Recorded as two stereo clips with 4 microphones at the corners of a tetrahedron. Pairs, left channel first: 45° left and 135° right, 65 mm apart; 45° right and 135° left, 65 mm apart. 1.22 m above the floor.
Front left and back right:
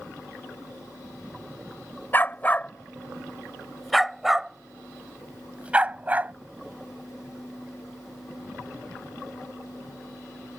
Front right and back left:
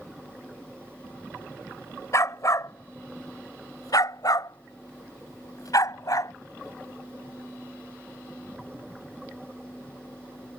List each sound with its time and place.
2.1 s a dog barking: 10° right; by 6.3 s 70° right